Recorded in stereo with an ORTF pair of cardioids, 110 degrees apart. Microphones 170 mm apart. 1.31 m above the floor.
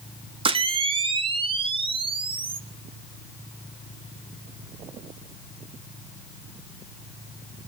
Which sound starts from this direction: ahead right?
A camera shutter, at 0.5 s.